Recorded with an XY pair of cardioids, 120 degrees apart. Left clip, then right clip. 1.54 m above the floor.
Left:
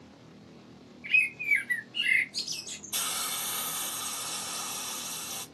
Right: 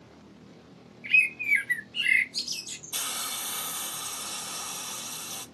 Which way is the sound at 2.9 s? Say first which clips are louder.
Even; straight ahead.